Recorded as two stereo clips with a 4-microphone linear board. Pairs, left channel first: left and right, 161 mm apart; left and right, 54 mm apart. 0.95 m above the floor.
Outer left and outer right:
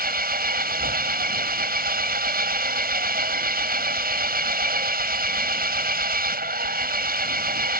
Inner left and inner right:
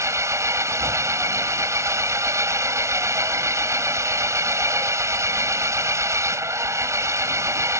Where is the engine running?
70° right (ahead or behind).